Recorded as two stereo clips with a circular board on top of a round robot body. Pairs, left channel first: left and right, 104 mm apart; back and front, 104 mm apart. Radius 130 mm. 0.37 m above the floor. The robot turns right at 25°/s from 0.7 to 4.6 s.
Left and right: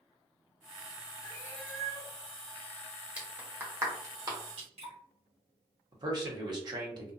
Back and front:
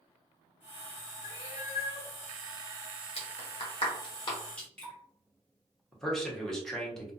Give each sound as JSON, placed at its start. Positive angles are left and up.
{"t": 1.2, "sound": "a cat meowing", "azimuth_deg": 155, "distance_m": 1.3}
{"t": 3.2, "sound": "a clap", "azimuth_deg": -165, "distance_m": 1.2}
{"t": 4.6, "sound": "dripping", "azimuth_deg": -100, "distance_m": 1.5}
{"t": 5.9, "sound": "a man speaking", "azimuth_deg": -95, "distance_m": 1.1}